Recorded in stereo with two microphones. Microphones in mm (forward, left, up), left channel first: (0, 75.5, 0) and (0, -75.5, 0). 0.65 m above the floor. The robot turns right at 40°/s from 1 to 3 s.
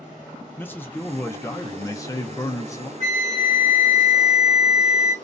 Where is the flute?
45° right (ahead or behind), 1.0 m.